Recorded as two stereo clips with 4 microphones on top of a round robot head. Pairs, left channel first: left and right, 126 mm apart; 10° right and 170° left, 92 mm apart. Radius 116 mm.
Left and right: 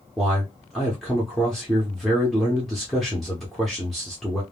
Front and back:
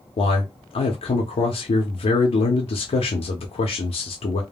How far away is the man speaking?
About 0.6 m.